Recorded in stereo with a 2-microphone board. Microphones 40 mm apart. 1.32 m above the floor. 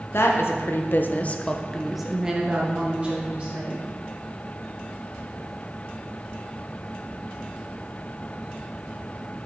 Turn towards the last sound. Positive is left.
turn(degrees=-40)  # may be behind; listen again after turning